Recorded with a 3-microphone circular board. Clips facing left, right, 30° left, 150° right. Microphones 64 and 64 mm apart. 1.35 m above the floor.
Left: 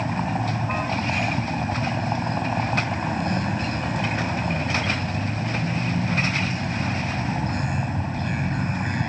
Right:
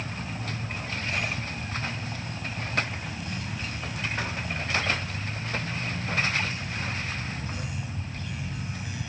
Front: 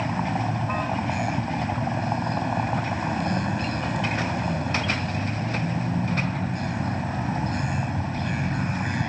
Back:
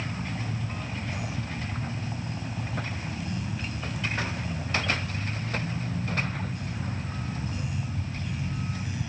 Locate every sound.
0.0 s a vehicle: 55° left